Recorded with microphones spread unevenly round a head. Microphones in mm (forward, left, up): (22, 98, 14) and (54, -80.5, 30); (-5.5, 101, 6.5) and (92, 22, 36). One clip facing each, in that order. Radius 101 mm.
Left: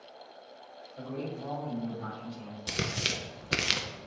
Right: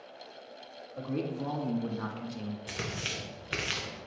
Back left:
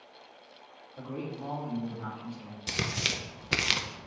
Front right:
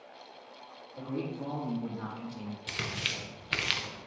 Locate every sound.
1.0 s a man speaking: 95° right, 2 m; by 2.6 s 55° right, 1.2 m
2.7 s tearing paper: 100° left, 0.6 m